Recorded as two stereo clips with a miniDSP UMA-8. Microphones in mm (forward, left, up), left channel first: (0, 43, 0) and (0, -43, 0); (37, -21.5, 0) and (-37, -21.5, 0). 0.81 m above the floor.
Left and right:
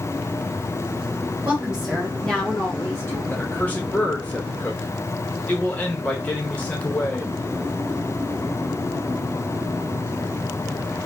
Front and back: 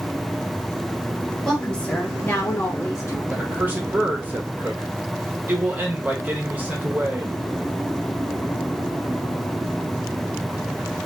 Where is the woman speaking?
75° right, 0.7 m; by 3.2 s 40° left, 1.2 m.